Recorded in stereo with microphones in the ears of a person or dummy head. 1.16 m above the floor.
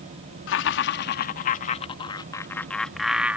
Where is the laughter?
60° left (ahead or behind); by 3.4 s 5° right (ahead or behind).